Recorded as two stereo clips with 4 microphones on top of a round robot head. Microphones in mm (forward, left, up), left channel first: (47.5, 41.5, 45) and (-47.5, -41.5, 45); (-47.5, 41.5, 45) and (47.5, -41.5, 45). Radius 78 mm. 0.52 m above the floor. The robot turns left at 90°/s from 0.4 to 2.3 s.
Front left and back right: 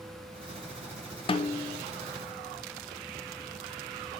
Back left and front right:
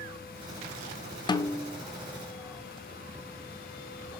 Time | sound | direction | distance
1.3 | a snare drum | 85° left | 0.7 m